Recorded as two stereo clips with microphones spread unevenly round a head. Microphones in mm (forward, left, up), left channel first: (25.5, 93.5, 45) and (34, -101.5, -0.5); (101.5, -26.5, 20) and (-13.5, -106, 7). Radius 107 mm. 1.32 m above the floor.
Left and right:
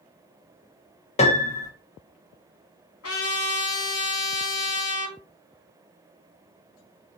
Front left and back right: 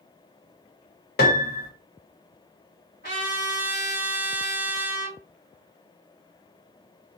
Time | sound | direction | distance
1.2 | a piano | 35° left | 0.9 m
3.0 | a trumpet | 85° left | 2.5 m